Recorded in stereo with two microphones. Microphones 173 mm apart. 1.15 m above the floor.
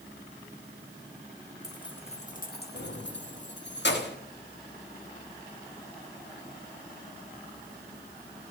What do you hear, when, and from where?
1.6 s keys jangling: 20° left (ahead or behind), 1.2 m; by 4.2 s 70° left (ahead or behind), 1.6 m